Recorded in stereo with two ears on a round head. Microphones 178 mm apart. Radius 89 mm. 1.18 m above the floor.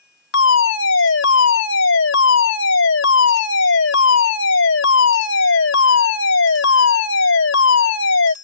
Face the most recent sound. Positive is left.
turn(degrees=70)  # may be behind; listen again after turning